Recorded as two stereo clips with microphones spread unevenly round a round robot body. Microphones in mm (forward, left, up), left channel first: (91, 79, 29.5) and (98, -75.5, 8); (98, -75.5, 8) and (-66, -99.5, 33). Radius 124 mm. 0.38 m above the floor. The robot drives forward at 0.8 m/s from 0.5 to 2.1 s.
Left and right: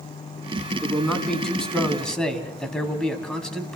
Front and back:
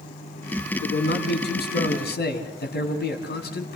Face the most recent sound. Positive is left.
turn(degrees=5)